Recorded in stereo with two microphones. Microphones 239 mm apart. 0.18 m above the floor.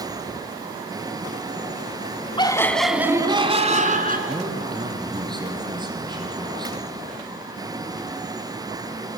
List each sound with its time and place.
2.4 s laughter: 20° left (ahead or behind), 1.2 m; by 4.2 s 40° right (ahead or behind), 1.9 m
4.3 s a man speaking: 20° right (ahead or behind), 4.5 m